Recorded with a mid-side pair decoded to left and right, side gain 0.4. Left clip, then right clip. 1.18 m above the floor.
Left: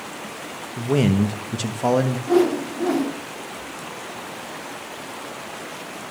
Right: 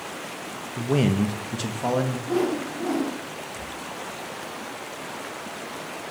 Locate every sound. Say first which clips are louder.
0.8 s a man speaking: left 3 dB; 5° left, 1.2 m; by 2.2 s 35° left, 1.7 m
2.3 s a whoosh: left 8 dB; 45° left, 2.5 m